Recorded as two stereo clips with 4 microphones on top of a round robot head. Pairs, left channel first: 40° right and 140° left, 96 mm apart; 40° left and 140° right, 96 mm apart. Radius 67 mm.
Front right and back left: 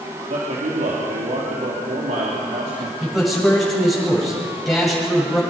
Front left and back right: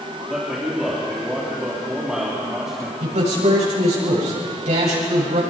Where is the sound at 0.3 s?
140° left, 3.5 m.